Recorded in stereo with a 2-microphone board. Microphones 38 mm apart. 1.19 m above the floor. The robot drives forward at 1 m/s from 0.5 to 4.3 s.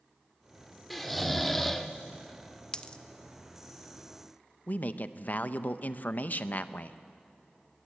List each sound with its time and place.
0.9 s snoring: 5° left (ahead or behind), 1.7 m; by 1.9 s 10° left (ahead or behind), 0.8 m
2.7 s a dropped coin: 25° left (ahead or behind), 0.6 m; by 3.0 s 20° left (ahead or behind), 0.8 m
4.7 s a man speaking: 45° left (ahead or behind), 0.7 m